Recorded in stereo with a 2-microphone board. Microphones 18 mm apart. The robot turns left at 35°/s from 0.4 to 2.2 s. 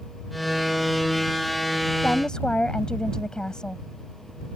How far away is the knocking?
No knocking in this recording.